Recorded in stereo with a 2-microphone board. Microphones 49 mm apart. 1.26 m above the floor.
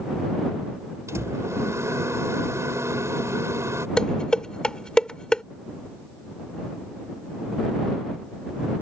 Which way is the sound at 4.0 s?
20° left (ahead or behind).